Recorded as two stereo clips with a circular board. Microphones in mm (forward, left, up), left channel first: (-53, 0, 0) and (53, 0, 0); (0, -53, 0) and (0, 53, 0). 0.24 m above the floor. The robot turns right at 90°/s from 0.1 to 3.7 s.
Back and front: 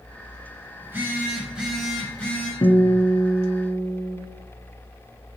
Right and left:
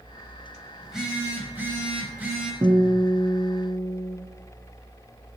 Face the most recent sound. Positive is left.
turn(degrees=-120)